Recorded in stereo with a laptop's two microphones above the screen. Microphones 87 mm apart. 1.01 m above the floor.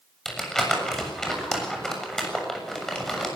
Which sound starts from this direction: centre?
Crumpling, at 0.2 s.